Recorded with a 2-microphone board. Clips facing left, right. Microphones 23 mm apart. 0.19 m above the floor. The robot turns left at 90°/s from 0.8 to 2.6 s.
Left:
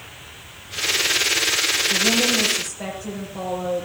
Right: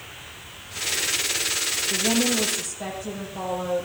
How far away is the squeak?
No squeak in this recording.